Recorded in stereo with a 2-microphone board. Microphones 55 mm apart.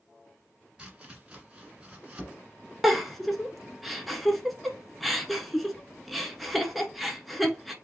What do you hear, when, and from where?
0.8 s chopping: 20° right (ahead or behind), 1.5 m
2.8 s a giggle: centre (ahead or behind), 0.7 m